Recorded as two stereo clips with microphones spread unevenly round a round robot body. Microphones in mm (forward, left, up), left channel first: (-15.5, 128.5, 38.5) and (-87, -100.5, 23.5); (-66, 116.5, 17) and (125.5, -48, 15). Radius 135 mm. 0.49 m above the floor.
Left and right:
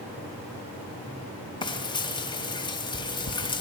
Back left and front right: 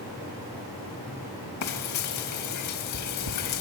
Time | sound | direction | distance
1.6 | frying | 145° left | 3 m